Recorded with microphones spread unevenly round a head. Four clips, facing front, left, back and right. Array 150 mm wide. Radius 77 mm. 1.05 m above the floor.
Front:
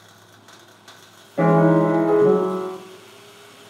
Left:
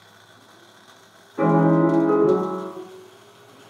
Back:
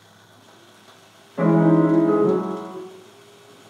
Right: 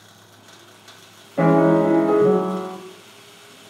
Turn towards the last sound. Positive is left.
turn(degrees=-105)